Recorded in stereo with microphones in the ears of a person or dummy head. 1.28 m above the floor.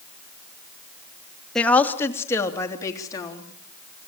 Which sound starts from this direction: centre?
A woman speaking, at 1.6 s.